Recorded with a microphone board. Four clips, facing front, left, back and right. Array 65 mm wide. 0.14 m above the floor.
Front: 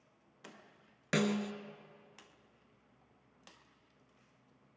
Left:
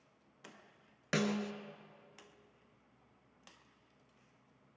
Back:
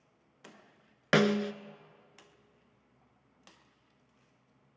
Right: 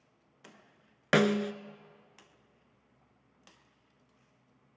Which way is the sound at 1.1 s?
135° right.